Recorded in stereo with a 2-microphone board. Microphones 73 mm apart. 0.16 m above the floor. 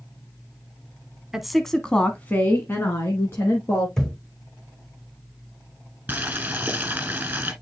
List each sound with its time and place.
1.3 s a woman speaking: 5° right (ahead or behind), 1.0 m; by 3.9 s 35° left (ahead or behind), 2 m
4.0 s a thud: 10° left (ahead or behind), 2.5 m
6.1 s boiling: 20° right (ahead or behind), 1.6 m